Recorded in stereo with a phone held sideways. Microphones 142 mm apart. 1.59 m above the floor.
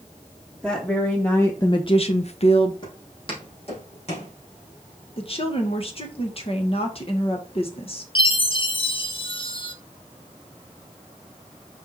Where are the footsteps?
35° left (ahead or behind), 4 m; by 4.3 s 50° left (ahead or behind), 4.5 m.